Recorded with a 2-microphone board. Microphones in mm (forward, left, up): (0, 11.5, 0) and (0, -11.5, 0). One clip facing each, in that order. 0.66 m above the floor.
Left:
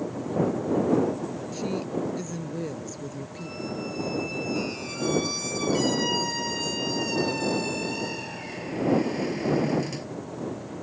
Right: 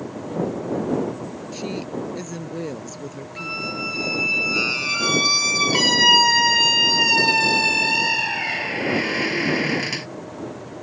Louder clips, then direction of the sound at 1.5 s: Right 2 dB; 25° right (ahead or behind).